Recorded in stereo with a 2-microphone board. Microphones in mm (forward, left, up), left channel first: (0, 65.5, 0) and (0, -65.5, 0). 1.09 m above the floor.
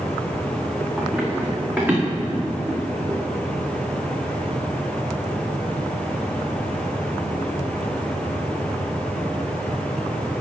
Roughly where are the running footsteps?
Centre.